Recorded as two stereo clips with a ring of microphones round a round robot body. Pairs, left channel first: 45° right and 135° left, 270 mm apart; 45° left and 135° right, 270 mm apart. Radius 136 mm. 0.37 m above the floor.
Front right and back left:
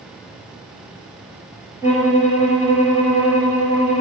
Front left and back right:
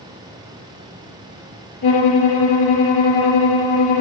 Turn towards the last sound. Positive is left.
turn(degrees=55)